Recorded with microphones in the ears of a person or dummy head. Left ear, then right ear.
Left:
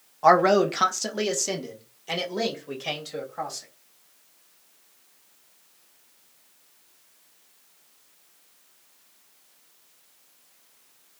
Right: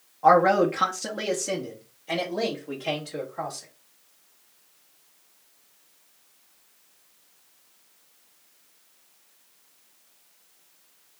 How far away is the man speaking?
About 0.8 m.